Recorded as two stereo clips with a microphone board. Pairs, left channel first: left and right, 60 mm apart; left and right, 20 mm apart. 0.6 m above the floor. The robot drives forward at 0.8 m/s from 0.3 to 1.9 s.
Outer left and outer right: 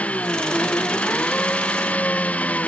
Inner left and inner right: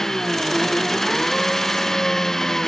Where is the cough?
No cough in this recording.